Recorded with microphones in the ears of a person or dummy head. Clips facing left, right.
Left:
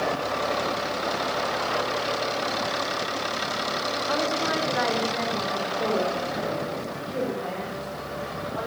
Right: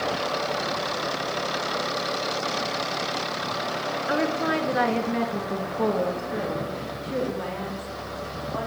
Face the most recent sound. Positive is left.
turn(degrees=-80)